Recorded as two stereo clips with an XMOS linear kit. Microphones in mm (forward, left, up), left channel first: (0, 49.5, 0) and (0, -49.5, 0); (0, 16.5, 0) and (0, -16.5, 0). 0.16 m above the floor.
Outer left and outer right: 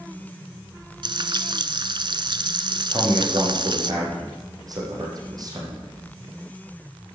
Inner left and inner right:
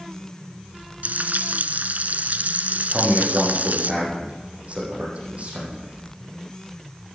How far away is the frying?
About 0.9 m.